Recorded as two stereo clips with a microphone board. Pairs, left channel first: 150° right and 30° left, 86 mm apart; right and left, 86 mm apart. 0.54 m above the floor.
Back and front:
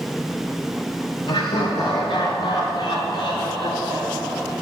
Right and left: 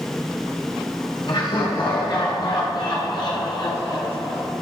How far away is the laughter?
About 4 m.